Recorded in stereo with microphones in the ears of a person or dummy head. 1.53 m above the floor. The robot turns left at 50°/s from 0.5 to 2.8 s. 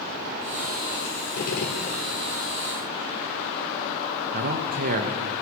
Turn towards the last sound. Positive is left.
turn(degrees=-45)  # may be behind; listen again after turning